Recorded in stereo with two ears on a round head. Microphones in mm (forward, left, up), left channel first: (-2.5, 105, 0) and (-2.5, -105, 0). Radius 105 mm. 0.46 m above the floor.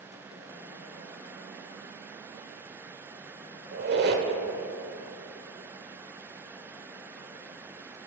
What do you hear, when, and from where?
3.7 s a squeak: 45° right (ahead or behind), 1.2 m